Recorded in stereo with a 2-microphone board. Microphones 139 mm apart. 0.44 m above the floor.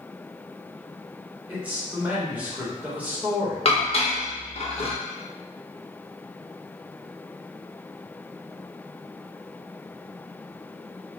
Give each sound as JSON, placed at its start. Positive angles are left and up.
{"t": 1.5, "sound": "a man speaking", "side_deg": -10, "distance_m": 1.2}
{"t": 3.6, "sound": "dishes clattering", "side_deg": 45, "distance_m": 0.6}